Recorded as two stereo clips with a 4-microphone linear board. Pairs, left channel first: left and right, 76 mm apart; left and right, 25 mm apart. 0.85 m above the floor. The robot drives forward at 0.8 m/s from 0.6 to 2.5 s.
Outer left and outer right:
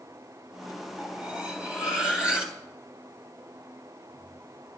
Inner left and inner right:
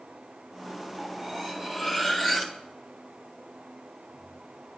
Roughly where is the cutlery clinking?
Centre.